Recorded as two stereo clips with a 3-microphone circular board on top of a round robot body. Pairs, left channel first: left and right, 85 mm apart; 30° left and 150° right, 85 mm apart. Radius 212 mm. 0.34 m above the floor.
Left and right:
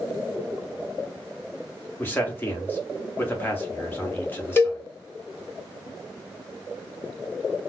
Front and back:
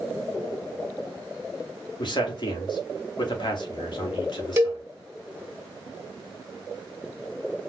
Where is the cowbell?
155° left, 1.2 m.